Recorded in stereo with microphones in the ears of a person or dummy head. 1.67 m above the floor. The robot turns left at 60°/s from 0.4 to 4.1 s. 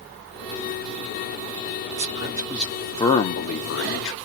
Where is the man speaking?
140° right, 0.7 m; by 4.1 s 90° left, 0.7 m.